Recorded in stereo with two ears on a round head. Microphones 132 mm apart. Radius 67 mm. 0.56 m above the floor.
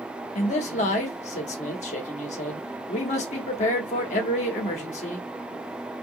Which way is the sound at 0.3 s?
50° left (ahead or behind).